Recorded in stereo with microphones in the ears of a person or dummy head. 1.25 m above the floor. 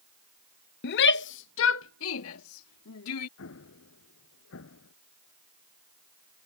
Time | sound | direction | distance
0.8 | a shout | 55° left (ahead or behind) | ?
3.4 | an explosion | 70° left (ahead or behind) | ?